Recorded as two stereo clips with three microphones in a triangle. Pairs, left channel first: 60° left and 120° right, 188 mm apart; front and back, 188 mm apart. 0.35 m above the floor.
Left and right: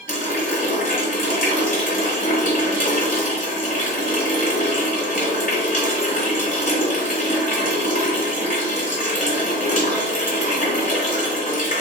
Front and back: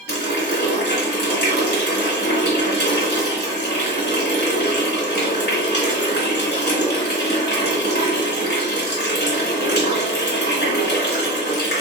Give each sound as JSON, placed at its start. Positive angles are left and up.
{"t": 0.1, "sound": "a running tap", "azimuth_deg": 20, "distance_m": 1.4}